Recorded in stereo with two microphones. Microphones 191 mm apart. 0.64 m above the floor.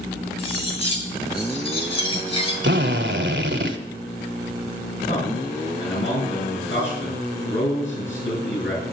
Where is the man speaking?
80° left, 9.5 m.